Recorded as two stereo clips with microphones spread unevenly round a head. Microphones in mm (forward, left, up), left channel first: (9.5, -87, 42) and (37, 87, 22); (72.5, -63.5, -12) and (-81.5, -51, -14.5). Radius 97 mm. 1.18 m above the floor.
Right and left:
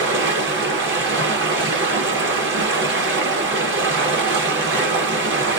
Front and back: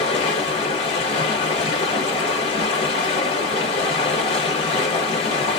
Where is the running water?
60° left, 1.0 m.